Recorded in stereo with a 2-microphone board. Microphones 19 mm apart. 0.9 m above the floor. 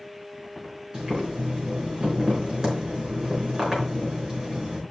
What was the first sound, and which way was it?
Boiling, 40° right (ahead or behind).